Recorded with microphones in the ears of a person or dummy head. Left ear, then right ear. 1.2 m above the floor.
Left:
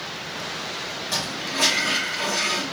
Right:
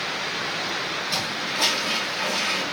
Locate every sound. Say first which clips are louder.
1.1 s a toilet flushing: right 1 dB; 40° left (ahead or behind), 2.5 m